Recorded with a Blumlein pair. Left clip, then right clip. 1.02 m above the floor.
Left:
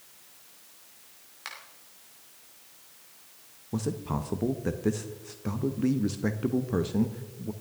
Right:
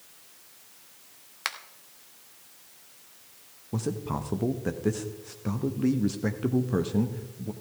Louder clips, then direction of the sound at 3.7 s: Right 1 dB; straight ahead.